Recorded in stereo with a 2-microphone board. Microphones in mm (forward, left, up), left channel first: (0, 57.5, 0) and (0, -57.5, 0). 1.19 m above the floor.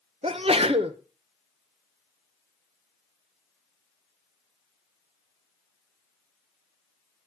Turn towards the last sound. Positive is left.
turn(degrees=-60)  # may be behind; listen again after turning